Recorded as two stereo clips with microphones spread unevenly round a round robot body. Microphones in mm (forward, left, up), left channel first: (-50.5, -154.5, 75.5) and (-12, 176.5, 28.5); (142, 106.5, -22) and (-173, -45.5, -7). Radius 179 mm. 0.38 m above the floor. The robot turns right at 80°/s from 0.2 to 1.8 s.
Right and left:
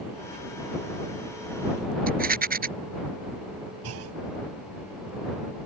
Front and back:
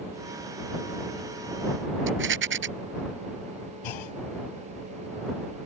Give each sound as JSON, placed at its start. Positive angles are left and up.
{"t": 2.1, "sound": "a rattle", "azimuth_deg": 150}
{"t": 3.8, "sound": "a clunk", "azimuth_deg": 35}